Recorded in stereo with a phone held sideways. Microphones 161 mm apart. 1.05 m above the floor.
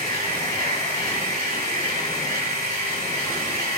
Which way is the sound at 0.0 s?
75° right (ahead or behind).